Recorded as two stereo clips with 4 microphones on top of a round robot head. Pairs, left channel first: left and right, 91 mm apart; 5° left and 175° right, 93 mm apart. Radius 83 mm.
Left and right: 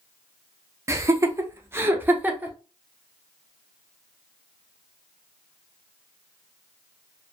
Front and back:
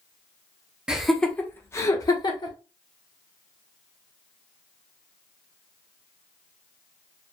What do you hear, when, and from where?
0.9 s laughter: 100° right, 0.7 m; by 2.5 s 20° right, 1.1 m